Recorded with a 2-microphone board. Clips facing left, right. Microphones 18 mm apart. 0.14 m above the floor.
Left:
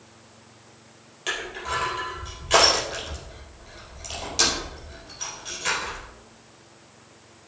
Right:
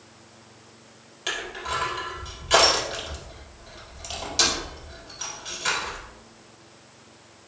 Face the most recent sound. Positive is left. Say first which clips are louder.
# even
turn(degrees=-5)  # may be behind; listen again after turning